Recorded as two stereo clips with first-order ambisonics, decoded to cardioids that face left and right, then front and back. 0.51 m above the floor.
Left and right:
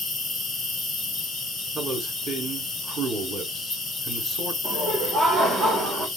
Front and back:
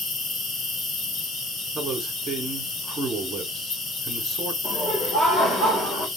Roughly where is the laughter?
Ahead right.